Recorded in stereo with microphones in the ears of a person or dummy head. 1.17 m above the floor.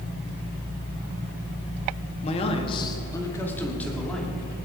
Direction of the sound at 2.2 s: 35° left (ahead or behind).